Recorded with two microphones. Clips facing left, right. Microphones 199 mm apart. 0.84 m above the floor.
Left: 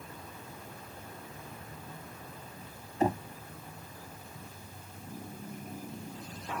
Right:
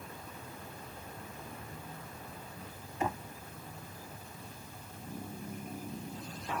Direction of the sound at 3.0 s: 35° left (ahead or behind).